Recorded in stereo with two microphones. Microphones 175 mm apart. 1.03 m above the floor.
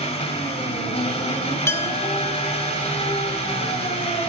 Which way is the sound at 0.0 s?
40° left (ahead or behind).